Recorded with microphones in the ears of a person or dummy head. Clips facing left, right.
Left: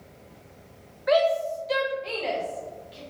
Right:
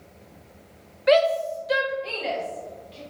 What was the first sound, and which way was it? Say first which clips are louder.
A shout: right 3 dB; 40° right (ahead or behind).